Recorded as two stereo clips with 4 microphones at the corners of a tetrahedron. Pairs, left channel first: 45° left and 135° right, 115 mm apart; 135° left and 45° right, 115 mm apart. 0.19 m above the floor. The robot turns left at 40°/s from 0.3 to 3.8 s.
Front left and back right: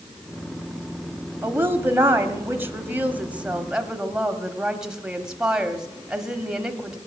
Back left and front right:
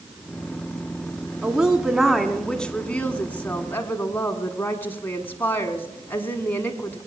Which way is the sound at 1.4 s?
110° right.